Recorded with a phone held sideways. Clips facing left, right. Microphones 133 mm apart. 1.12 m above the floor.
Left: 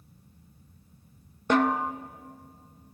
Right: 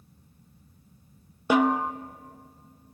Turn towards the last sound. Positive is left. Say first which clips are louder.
# right 2 dB
turn(degrees=-5)  # may be behind; listen again after turning